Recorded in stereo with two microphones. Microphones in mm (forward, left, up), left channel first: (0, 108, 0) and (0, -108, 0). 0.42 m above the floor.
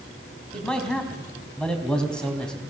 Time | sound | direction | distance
0.5 | a man speaking | 5° left (ahead or behind) | 3.5 m